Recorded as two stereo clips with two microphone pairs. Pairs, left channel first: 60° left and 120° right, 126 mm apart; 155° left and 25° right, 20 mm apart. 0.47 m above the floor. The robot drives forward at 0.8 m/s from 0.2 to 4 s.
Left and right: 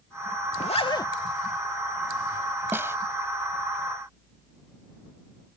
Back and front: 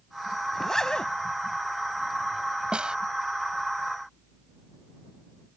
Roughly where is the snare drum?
Ahead right.